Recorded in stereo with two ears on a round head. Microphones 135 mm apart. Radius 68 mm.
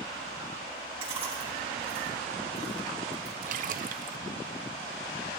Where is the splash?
55° right (ahead or behind), 0.7 m.